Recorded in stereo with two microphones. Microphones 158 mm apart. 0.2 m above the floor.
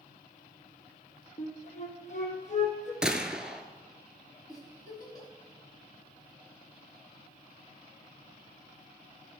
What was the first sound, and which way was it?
A flute, 50° left (ahead or behind).